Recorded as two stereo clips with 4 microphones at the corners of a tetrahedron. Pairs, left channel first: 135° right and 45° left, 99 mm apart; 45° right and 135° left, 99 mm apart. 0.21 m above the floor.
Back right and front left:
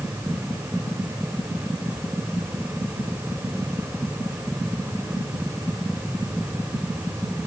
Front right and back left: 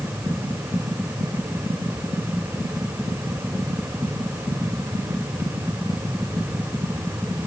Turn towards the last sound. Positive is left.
No sound to turn to.